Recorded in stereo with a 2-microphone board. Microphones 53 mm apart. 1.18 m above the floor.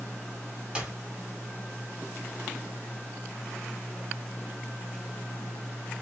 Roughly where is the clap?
Right.